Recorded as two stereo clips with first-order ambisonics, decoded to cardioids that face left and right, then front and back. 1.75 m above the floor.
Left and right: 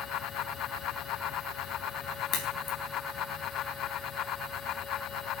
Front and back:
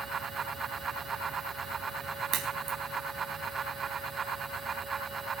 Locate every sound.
2.3 s a crack: 135° left, 3.5 m